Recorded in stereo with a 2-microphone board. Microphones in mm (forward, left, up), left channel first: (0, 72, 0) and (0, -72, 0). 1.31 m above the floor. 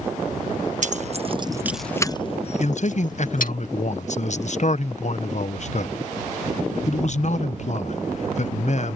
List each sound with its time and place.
0.8 s keys jangling: 60° right (ahead or behind); by 3.5 s 70° left (ahead or behind)
2.6 s a man speaking: 55° left (ahead or behind)